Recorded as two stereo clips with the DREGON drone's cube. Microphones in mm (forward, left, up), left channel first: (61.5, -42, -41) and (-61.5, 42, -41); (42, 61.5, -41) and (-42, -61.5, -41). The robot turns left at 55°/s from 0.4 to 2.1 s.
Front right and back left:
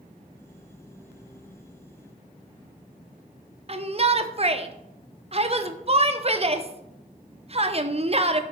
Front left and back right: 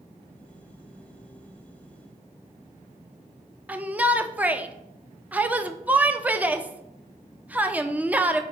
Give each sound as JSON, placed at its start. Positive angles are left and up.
{"t": 3.7, "sound": "a shout", "azimuth_deg": 160, "distance_m": 0.6}